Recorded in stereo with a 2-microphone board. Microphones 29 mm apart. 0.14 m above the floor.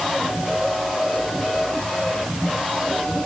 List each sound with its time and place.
Only background noise.